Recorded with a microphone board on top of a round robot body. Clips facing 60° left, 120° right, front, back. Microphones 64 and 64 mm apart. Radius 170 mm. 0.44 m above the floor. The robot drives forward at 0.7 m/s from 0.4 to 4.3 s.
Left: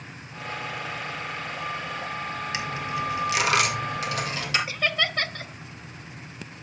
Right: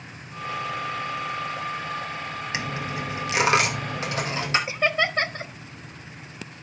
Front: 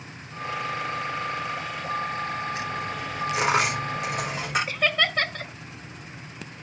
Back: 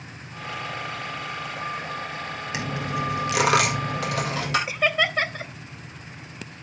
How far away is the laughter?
About 0.9 m.